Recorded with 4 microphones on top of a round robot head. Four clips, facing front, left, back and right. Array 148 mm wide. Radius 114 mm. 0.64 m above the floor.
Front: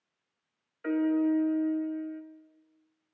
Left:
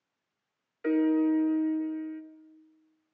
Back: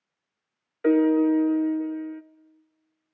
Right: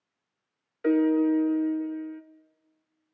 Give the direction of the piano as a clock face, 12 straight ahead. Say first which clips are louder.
Right 3 dB, back 7 dB; 5 o'clock.